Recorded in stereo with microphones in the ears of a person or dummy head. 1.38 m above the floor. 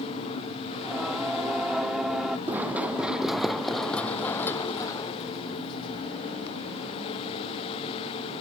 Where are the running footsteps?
5° right (ahead or behind); by 6.7 s 45° left (ahead or behind).